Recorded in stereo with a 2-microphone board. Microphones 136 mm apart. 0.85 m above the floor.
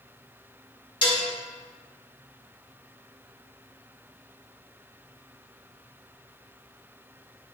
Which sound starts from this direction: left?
Dishes clattering, at 1.0 s.